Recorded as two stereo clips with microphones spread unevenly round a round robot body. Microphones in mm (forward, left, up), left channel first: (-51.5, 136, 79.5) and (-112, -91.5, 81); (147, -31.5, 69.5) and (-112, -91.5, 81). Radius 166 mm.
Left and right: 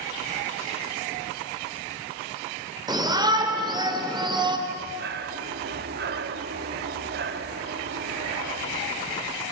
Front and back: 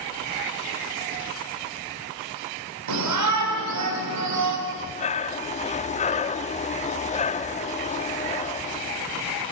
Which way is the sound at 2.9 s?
Straight behind.